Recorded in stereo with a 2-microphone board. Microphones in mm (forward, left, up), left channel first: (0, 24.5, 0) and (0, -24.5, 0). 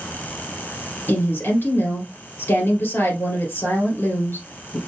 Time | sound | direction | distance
1.1 | a woman speaking | 55° left (ahead or behind) | 2 m